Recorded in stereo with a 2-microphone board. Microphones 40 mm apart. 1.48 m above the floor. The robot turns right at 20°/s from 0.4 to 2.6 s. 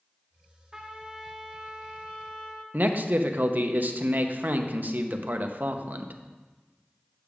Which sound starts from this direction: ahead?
A trumpet, at 0.7 s.